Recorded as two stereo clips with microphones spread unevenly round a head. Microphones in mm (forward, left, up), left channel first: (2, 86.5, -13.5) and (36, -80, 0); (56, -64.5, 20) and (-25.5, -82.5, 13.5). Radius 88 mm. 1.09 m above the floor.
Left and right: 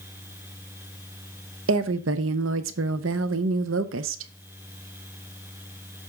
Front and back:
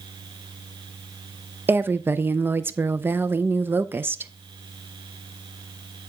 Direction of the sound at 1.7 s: 100° right.